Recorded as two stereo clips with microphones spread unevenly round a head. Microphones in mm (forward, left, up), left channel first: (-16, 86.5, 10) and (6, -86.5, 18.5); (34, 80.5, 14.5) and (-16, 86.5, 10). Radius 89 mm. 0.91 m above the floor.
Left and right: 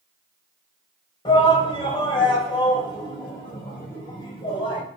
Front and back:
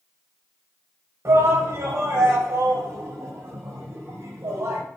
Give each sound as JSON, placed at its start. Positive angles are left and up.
{"t": 1.2, "sound": "a shout", "azimuth_deg": 160, "distance_m": 4.5}